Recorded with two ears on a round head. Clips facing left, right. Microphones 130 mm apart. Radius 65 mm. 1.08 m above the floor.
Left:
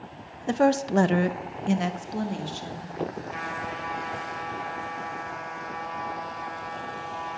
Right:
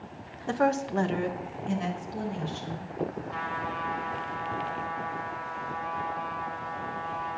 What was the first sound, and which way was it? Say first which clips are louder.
A woman speaking: left 4 dB; 20° left (ahead or behind).